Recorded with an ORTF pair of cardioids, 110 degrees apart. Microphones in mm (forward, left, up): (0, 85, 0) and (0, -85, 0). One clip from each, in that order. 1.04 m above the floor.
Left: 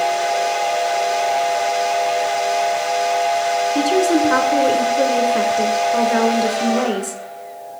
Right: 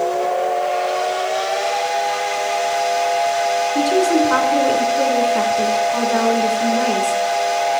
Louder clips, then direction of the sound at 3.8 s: Right 1 dB; 5° left.